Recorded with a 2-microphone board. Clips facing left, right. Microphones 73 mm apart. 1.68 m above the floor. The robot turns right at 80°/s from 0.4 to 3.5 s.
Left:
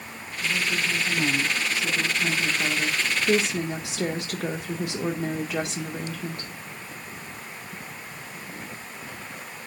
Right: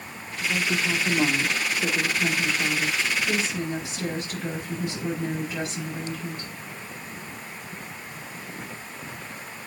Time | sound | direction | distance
0.4 | a woman speaking | 155° right | 2 m